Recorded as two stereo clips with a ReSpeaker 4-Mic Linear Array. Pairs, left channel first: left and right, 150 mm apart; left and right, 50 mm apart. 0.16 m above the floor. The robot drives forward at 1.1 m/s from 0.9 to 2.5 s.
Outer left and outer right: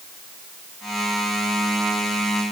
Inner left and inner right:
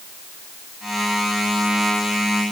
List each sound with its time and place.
Only background noise.